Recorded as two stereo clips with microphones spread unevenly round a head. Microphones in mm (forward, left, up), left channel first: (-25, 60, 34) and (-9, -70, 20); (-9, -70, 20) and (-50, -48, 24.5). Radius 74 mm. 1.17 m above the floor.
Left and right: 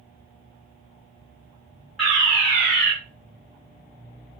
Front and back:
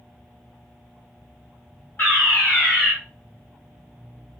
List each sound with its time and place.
2.0 s a fire alarm: 10° left, 1.8 m